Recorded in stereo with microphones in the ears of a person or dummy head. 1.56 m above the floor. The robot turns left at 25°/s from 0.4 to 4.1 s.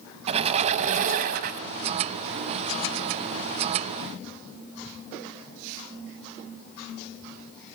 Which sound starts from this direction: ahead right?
A squeak, at 0.3 s.